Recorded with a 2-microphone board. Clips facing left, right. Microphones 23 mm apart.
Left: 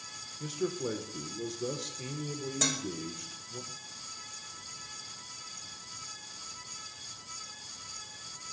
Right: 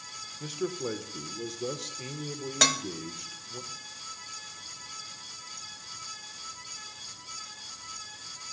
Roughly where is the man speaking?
Centre.